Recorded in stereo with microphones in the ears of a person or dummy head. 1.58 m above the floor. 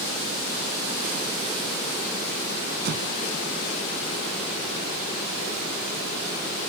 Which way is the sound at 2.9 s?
70° right (ahead or behind).